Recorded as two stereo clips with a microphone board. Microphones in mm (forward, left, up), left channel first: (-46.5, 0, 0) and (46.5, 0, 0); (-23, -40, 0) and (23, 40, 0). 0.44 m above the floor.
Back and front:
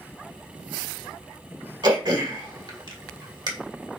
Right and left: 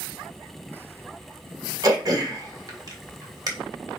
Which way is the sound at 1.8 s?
20° left.